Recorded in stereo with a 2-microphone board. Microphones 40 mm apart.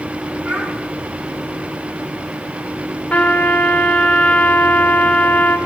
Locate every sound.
0.4 s a child speaking: 35° right (ahead or behind), 8 m
3.1 s a trumpet: 45° left (ahead or behind), 2.5 m